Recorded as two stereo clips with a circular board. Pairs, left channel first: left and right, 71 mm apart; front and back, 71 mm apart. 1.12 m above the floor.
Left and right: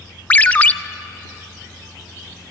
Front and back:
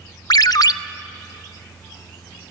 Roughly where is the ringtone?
Ahead left.